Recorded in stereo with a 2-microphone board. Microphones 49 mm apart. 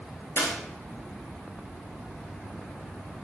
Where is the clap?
65° left (ahead or behind), 7.5 m.